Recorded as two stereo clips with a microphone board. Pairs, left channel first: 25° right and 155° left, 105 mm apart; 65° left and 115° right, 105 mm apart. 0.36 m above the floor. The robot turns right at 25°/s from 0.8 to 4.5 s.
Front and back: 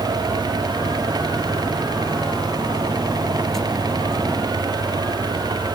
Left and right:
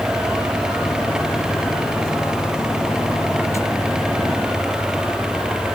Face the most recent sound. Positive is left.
No sound to turn to.